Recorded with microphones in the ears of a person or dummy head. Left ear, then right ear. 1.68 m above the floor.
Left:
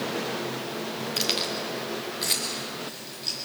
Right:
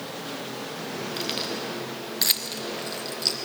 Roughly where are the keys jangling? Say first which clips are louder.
Left 4 dB; centre.